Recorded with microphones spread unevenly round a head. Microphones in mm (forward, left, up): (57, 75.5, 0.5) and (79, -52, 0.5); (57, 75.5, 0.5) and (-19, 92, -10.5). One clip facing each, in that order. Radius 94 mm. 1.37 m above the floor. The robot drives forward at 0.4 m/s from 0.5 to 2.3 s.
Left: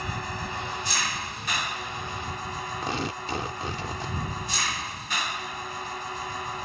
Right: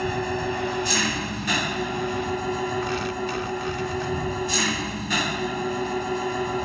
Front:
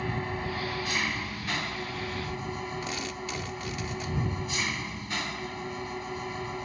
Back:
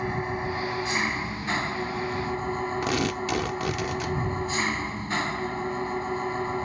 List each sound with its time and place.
0.0 s an engine running: 110° right; by 6.7 s 115° right
2.8 s tearing paper: 170° left